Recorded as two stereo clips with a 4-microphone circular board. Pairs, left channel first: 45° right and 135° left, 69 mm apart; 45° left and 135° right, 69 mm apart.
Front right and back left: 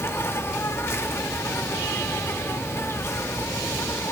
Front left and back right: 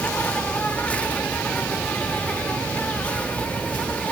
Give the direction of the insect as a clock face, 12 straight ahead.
1 o'clock.